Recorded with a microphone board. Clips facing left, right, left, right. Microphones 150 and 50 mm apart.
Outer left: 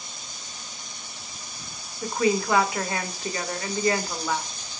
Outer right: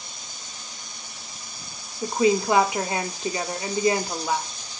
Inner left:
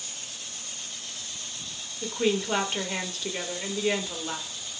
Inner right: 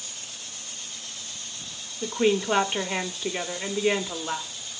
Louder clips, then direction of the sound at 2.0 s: Outer right 3 dB, inner right 3 dB; 20° right (ahead or behind).